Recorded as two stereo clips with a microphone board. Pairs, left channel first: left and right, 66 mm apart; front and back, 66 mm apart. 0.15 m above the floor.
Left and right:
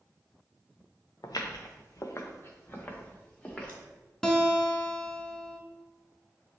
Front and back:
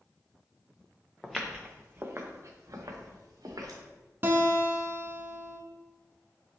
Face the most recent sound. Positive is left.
turn(degrees=165)